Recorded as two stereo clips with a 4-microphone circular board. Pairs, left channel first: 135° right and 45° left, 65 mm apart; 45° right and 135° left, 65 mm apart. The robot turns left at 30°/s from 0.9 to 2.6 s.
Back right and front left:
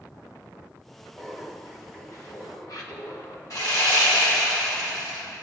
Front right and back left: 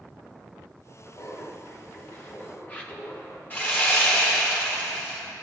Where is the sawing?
110° right, 2.5 m.